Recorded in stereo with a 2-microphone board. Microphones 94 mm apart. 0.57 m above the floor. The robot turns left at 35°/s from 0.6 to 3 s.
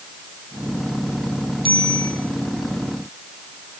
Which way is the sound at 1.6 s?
65° right (ahead or behind).